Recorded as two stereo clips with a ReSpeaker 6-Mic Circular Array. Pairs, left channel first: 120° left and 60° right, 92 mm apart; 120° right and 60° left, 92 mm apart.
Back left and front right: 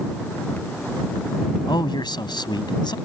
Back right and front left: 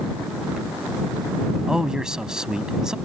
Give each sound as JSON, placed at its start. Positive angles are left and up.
{"t": 1.7, "sound": "a man speaking", "azimuth_deg": 140}